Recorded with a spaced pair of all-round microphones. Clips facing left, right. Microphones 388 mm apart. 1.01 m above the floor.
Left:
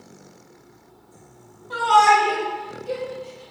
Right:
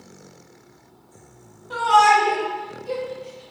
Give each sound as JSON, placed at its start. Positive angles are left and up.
{"t": 1.7, "sound": "a shout", "side_deg": 10, "distance_m": 1.7}